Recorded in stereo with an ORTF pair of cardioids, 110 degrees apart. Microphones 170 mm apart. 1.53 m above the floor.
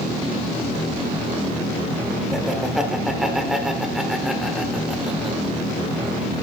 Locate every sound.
2.3 s laughter: straight ahead, 1.2 m